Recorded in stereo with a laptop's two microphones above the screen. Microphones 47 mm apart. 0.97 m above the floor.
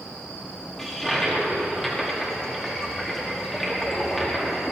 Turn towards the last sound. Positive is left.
turn(degrees=10)  # may be behind; listen again after turning